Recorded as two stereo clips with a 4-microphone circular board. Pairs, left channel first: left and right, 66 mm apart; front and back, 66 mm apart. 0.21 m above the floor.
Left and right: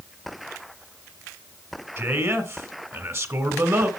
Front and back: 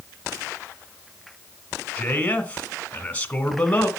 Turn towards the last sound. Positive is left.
turn(degrees=-60)